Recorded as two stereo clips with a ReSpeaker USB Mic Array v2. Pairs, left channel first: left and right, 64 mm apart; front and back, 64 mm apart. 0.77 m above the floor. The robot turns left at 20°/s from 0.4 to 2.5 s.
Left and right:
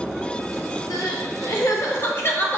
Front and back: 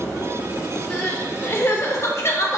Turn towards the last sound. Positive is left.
turn(degrees=35)